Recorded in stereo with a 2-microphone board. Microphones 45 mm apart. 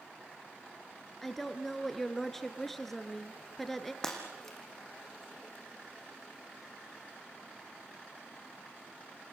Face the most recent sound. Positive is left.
turn(degrees=10)  # may be behind; listen again after turning